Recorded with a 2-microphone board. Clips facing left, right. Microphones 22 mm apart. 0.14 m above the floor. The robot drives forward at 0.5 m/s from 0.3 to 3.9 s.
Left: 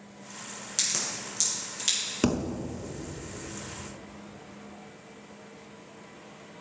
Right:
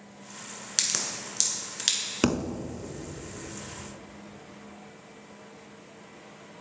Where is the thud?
25° right (ahead or behind), 0.5 m; by 2.6 s 20° right (ahead or behind), 0.6 m.